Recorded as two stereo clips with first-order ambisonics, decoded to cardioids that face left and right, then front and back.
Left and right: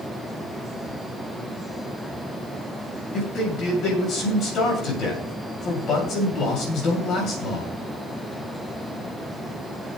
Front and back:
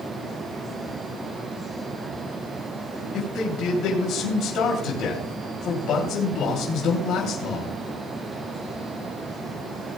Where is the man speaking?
40° left, 2.5 m.